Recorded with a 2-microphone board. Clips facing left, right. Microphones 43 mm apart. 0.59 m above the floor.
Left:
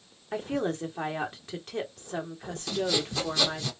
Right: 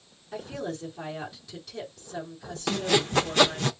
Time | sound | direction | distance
0.3 | a woman speaking | 50° left (ahead or behind) | 1.9 m
2.7 | sawing | 55° right (ahead or behind) | 0.7 m